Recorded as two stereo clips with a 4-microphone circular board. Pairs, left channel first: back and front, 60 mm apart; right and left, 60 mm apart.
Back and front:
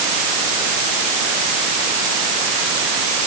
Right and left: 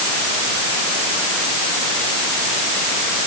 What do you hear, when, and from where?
Only background noise.